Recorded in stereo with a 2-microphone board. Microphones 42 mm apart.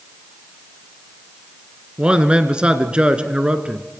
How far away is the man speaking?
About 1.7 m.